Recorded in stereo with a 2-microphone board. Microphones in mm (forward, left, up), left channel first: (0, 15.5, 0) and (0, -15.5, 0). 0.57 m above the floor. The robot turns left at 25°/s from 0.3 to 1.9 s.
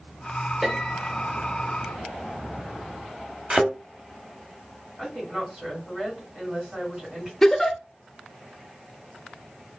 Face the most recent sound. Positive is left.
turn(degrees=15)  # may be behind; listen again after turning